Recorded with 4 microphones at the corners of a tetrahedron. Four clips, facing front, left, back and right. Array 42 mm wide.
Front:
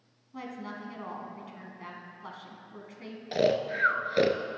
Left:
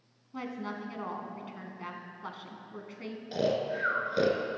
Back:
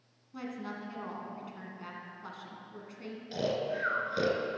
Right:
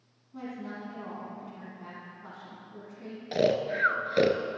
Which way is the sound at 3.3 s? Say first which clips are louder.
Right 4 dB, front 6 dB; 45° right.